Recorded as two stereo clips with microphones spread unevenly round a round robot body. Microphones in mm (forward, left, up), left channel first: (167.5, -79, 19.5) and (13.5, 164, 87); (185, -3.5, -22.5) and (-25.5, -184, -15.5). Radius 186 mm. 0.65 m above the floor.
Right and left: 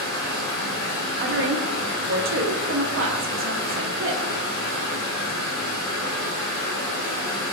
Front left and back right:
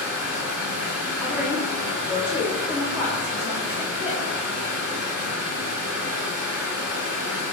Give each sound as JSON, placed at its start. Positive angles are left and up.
{"t": 0.0, "sound": "running water", "azimuth_deg": -110, "distance_m": 1.9}
{"t": 1.2, "sound": "a woman speaking", "azimuth_deg": 135, "distance_m": 0.6}